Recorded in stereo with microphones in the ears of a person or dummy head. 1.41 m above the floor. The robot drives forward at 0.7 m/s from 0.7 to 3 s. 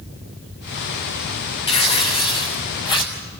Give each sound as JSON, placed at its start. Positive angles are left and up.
{"t": 1.7, "sound": "tearing paper", "side_deg": 30, "distance_m": 3.5}